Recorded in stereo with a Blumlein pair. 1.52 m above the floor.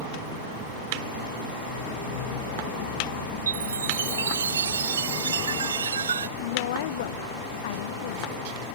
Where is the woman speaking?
55° left.